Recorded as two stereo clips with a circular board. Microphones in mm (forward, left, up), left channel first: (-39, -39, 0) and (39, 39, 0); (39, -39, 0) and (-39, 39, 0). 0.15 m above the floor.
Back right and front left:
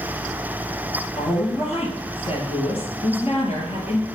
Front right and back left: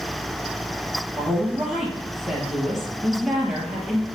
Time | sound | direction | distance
1.2 | a woman speaking | 140° right | 3 m